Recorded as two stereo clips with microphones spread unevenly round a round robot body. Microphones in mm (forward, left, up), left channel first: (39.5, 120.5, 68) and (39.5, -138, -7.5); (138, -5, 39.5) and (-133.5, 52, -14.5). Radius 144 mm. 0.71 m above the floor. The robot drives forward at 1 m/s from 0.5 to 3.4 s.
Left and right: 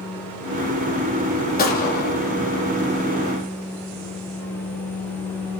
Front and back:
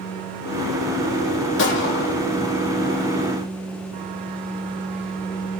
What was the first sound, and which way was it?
A gunshot, 35° left.